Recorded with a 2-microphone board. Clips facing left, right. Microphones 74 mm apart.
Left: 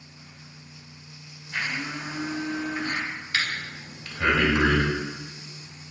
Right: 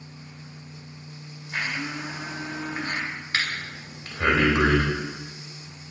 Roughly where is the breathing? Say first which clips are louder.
Even; right.